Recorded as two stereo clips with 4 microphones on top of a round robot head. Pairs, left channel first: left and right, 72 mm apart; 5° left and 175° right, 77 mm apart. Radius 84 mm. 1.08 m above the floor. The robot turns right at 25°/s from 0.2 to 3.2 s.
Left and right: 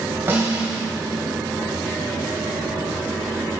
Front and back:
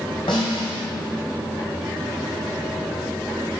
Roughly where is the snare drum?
Ahead right.